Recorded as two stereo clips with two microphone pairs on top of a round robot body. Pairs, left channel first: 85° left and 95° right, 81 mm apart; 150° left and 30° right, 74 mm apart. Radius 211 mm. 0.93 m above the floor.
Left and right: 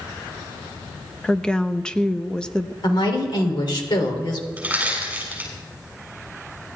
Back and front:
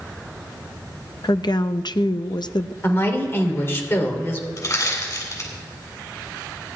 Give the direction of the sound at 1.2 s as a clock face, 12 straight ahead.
7 o'clock.